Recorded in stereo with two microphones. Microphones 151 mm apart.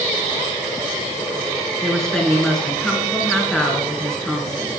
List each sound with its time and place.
1.8 s a woman speaking: 5° left (ahead or behind), 1.4 m